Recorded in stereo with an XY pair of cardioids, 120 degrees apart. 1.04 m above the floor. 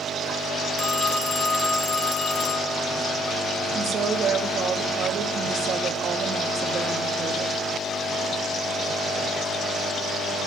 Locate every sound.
0.8 s a phone ringing: 45° left, 1.4 m
3.8 s a woman speaking: 50° right, 1.2 m